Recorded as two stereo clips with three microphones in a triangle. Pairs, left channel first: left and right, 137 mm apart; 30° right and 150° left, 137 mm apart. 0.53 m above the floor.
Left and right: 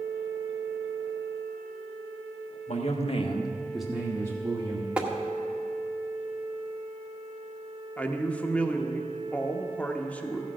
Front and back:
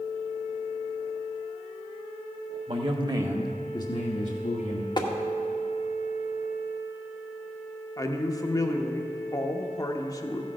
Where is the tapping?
15° right, 1.0 m.